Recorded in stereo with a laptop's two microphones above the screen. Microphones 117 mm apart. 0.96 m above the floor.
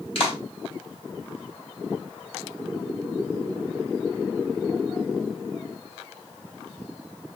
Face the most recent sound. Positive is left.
turn(degrees=50)  # may be behind; listen again after turning